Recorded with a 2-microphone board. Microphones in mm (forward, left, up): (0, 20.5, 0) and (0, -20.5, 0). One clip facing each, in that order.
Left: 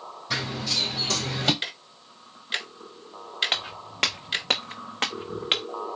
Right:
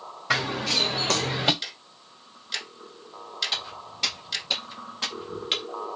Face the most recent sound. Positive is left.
turn(degrees=35)  # may be behind; listen again after turning